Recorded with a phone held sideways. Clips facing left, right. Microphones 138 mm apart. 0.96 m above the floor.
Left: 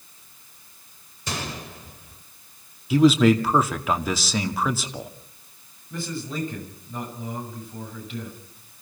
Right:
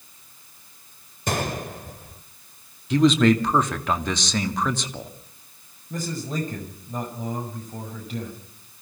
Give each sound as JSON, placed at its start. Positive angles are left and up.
{"t": 1.3, "sound": "a gunshot", "side_deg": -55, "distance_m": 1.6}
{"t": 2.9, "sound": "a man speaking", "side_deg": 5, "distance_m": 2.0}
{"t": 5.9, "sound": "a man speaking", "side_deg": -45, "distance_m": 7.0}